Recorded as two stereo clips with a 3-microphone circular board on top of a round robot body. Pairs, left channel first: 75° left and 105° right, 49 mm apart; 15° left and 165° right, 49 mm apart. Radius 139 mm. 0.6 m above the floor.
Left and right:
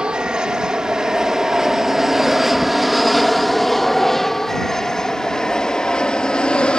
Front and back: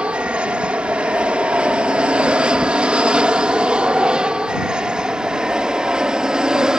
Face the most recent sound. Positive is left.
turn(degrees=130)